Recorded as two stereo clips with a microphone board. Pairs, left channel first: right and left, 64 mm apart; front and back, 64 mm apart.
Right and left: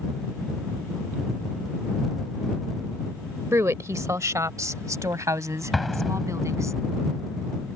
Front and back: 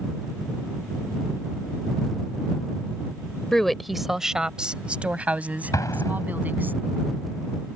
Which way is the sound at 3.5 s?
80° left.